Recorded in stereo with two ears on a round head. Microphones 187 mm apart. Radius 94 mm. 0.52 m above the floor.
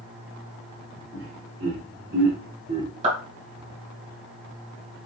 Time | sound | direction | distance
1.1 | laughter | 45° right (ahead or behind) | 2 m
3.0 | a clap | 35° right (ahead or behind) | 3 m